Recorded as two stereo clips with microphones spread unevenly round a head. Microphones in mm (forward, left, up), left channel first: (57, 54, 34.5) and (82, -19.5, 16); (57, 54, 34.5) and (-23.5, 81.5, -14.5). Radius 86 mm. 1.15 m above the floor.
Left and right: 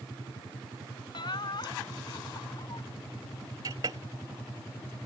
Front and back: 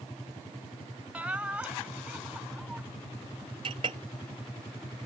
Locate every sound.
1.1 s laughter: 85° left; by 2.8 s 80° left
3.6 s a clink: 140° right